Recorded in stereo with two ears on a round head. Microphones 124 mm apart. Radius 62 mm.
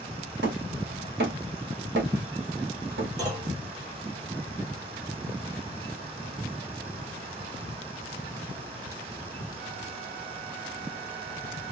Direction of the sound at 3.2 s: 30° right (ahead or behind).